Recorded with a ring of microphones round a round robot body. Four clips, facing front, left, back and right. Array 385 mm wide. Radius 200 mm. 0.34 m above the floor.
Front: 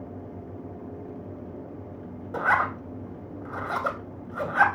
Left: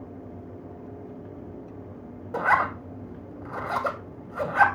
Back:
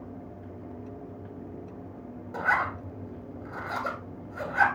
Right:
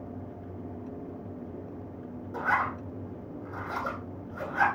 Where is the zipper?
70° left, 2.5 m.